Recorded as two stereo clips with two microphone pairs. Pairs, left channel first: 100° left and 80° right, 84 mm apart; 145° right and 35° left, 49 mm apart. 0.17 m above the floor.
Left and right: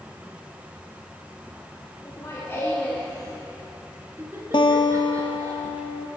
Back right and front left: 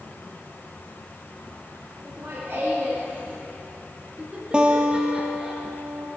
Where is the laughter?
65° left, 1.6 m; by 5.5 s 45° right, 2.5 m.